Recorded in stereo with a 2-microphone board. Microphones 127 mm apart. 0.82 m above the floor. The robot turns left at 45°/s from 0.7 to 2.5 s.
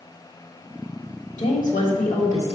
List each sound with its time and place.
1.4 s a woman speaking: 110° left, 1.7 m; by 2.5 s 60° left, 1.7 m